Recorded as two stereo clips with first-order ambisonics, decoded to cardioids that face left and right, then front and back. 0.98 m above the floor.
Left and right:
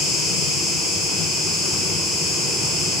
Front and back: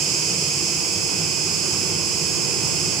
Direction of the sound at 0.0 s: 140° left.